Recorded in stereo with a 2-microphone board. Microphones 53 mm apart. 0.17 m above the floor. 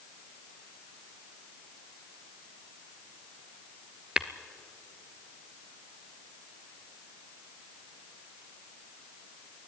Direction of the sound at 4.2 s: 15° right (ahead or behind).